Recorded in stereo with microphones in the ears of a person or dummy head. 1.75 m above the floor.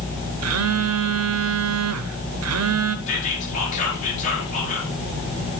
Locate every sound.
0.4 s a phone buzzing: 85° right, 0.7 m
3.1 s whispering: 40° left (ahead or behind), 4.5 m